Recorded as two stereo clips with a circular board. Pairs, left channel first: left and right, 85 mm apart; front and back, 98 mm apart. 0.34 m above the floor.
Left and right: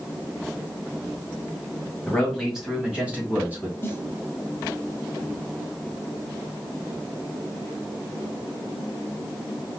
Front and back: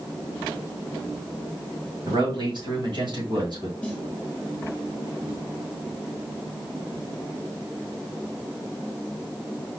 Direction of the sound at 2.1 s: 175° left.